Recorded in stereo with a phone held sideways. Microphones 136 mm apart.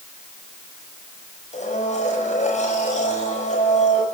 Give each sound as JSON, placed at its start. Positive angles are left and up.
{"t": 1.5, "sound": "a blender", "side_deg": 60, "distance_m": 7.5}